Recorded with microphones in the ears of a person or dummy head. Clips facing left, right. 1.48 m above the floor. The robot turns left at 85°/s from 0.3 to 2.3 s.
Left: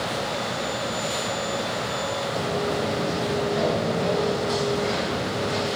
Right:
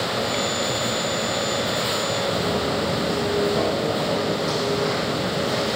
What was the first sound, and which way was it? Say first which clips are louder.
Footsteps: even; 60° right (ahead or behind).